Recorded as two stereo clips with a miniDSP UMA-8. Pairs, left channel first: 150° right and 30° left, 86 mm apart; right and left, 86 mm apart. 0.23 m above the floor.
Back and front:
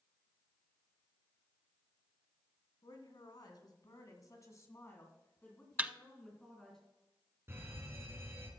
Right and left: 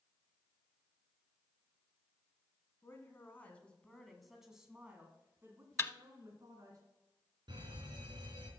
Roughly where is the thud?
Ahead right.